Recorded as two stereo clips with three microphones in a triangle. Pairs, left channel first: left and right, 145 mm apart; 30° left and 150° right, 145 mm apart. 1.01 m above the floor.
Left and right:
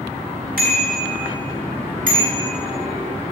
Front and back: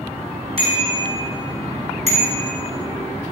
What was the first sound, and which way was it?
A bicycle bell, 100° right.